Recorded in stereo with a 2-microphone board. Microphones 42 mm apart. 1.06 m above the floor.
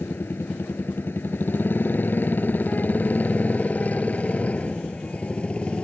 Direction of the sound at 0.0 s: 65° left (ahead or behind).